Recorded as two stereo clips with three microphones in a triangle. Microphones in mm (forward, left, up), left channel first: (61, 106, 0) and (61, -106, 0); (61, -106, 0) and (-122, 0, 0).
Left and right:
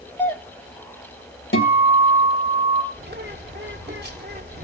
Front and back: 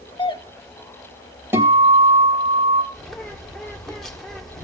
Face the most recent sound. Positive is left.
turn(degrees=-120)